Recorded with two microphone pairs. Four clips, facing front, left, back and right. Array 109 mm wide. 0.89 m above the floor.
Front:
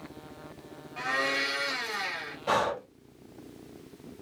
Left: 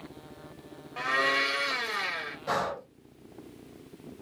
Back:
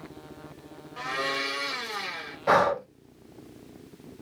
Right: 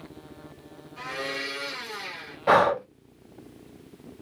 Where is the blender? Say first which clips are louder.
Left 6 dB, even; 90° left, 1.9 m.